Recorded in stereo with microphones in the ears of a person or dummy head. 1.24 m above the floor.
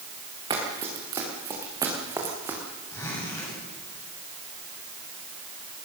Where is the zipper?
15° left (ahead or behind), 9 m.